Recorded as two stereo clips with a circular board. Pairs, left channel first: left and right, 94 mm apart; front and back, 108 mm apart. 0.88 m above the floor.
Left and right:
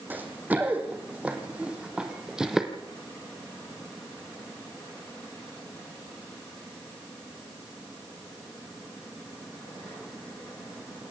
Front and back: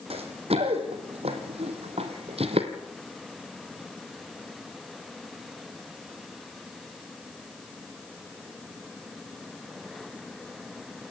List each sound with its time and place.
0.1 s running footsteps: 160° right, 3.5 m; by 2.7 s 175° right, 2 m